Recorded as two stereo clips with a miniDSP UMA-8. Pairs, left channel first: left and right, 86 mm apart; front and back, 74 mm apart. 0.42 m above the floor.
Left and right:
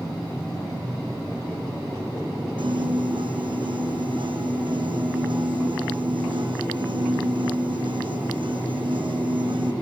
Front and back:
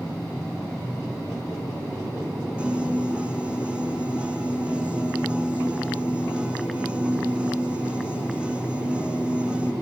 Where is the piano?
105° right, 3.5 m.